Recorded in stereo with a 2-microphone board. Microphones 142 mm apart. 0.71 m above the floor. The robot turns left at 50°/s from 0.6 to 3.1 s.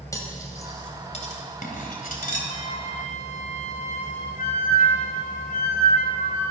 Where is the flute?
135° left, 2.5 m; by 6.5 s 105° left, 2.5 m.